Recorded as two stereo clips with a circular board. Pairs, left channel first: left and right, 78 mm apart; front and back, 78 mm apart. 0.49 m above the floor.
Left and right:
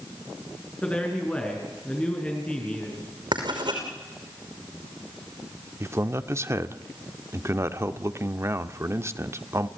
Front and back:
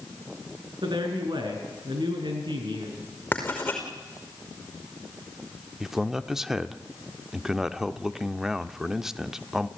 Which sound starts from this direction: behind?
A man speaking, at 0.8 s.